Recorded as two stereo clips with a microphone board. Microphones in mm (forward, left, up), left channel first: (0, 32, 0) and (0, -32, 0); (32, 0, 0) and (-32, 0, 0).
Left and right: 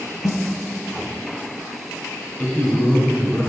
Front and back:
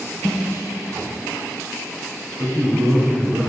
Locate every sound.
0.2 s a snare drum: 80° left, 0.8 m
2.4 s a man speaking: 150° left, 3 m